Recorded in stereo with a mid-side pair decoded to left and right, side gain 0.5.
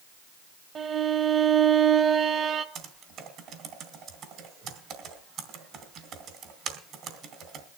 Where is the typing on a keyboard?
65° right, 2.5 m.